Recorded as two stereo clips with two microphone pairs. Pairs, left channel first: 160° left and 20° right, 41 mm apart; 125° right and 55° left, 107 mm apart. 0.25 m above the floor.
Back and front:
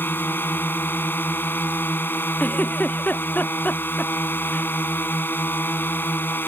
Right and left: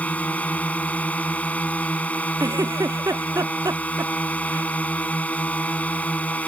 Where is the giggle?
110° left.